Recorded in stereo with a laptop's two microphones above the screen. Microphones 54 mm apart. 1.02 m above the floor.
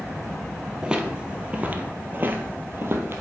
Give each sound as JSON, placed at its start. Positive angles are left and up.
{"t": 0.8, "sound": "footsteps", "side_deg": -15, "distance_m": 1.3}